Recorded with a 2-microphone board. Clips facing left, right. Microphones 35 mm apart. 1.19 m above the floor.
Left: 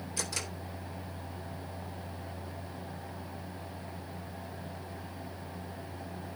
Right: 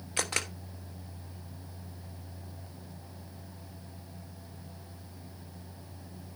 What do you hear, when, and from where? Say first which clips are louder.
0.2 s a camera shutter: right 6 dB; 50° right (ahead or behind), 1.1 m